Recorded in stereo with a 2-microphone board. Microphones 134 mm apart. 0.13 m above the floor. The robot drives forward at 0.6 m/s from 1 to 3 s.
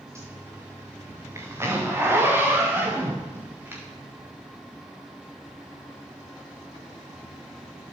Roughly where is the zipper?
Right.